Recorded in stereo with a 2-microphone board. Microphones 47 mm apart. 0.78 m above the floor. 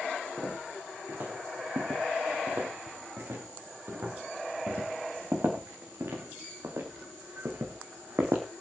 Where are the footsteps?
65° right (ahead or behind), 6.5 m; by 8.4 s 75° right (ahead or behind), 3 m.